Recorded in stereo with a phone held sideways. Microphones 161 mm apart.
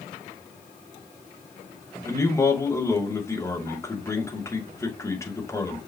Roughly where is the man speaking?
Centre.